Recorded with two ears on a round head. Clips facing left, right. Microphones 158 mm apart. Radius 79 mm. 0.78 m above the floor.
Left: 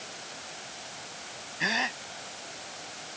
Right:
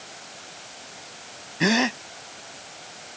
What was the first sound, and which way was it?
A gasp, 65° right (ahead or behind).